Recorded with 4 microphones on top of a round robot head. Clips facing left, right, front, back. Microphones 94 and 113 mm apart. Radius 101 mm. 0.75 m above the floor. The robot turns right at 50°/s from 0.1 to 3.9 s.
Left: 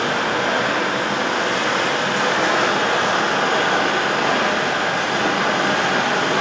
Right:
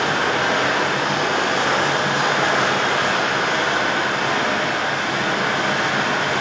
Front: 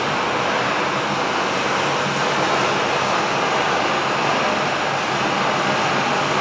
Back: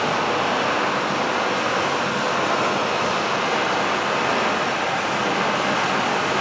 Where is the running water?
125° right, 1.0 m; by 6.4 s 65° left, 1.0 m.